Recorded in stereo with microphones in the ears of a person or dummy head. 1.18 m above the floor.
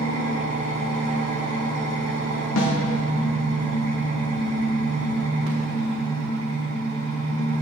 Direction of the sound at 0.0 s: 40° right (ahead or behind).